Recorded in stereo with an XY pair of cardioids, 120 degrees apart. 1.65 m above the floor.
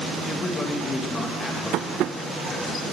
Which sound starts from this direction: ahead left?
A man speaking, at 0.2 s.